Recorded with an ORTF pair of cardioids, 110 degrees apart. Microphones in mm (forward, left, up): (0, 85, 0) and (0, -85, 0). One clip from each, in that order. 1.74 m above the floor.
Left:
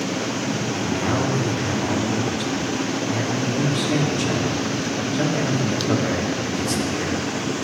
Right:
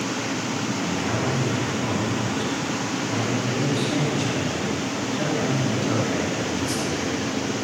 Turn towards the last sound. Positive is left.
turn(degrees=30)